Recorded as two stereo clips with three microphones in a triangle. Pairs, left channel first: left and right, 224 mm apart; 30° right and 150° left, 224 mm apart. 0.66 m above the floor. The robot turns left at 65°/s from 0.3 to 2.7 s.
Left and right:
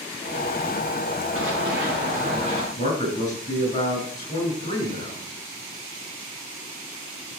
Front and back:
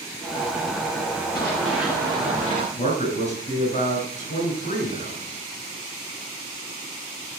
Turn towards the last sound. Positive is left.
turn(degrees=30)